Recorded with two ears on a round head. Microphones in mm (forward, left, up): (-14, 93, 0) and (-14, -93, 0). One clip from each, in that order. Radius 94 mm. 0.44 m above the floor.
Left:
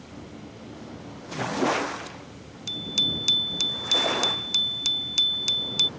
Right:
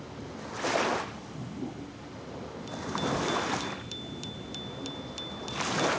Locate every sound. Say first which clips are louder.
2.7 s a bicycle bell: left 8 dB; 65° left (ahead or behind)